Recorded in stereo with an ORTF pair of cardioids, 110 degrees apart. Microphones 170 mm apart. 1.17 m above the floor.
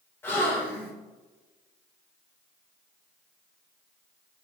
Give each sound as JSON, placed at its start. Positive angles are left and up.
{"t": 0.2, "sound": "a gasp", "azimuth_deg": 15, "distance_m": 3.0}